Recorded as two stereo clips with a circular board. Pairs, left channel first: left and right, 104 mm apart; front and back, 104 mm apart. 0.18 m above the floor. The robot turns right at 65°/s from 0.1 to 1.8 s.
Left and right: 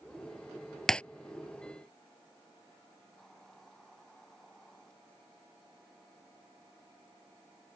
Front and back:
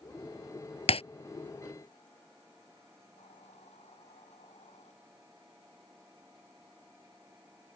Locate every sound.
0.9 s breaking glass: 5° left; by 1.0 s 10° left
3.2 s a hiss: 5° left